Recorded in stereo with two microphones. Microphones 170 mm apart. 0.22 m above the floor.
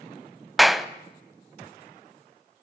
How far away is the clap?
About 0.8 m.